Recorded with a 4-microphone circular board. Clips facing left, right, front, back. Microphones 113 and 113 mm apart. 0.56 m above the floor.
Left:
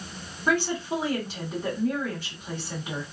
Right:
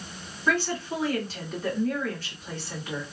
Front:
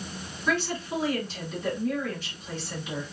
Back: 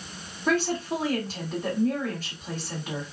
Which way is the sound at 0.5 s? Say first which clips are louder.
Left 1 dB, back 3 dB; 160° left.